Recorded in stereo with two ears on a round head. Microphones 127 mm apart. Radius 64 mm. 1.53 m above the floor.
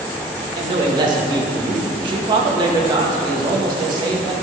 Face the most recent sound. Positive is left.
turn(degrees=-30)  # may be behind; listen again after turning